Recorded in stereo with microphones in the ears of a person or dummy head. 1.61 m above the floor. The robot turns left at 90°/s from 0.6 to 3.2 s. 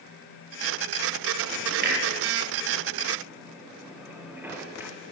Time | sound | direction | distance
1.8 | a clunk | 45° right (ahead or behind) | 7 m